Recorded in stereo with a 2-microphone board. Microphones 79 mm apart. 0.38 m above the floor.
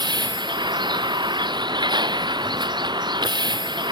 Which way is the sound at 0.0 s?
70° right (ahead or behind).